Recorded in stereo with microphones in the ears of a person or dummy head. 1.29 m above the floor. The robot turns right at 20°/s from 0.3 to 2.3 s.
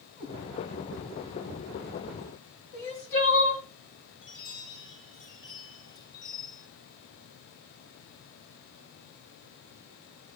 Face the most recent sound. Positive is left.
turn(degrees=70)  # may be behind; listen again after turning